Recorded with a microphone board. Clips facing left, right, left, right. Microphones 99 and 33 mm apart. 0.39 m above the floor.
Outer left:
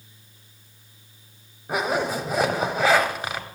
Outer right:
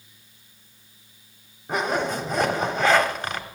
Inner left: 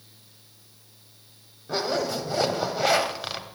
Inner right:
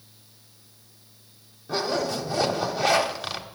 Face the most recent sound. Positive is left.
turn(degrees=5)  # may be behind; listen again after turning